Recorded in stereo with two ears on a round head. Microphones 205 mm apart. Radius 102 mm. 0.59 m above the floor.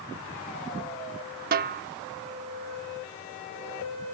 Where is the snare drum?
45° right (ahead or behind).